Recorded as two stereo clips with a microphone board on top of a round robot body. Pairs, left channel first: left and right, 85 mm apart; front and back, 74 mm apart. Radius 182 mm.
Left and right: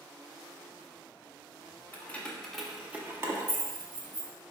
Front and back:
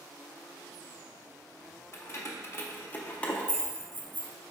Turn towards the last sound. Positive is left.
turn(degrees=-90)